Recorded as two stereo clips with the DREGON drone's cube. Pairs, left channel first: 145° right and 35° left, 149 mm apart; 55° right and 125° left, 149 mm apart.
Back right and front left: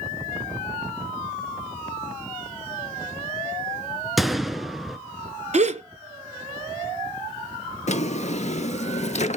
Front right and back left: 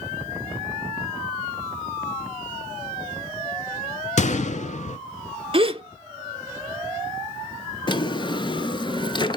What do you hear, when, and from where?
4.2 s a gunshot: 55° right, 0.5 m
5.5 s a gasp: 75° left, 0.5 m
7.9 s a drawer: 110° right, 0.5 m